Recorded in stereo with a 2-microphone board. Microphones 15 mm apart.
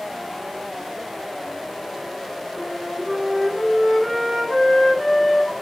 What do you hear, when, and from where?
2.6 s a flute: 10° left (ahead or behind), 5 m